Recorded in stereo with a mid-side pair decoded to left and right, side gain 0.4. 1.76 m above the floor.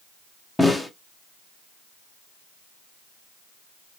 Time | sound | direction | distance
0.6 | a snare drum | 10° left | 1.0 m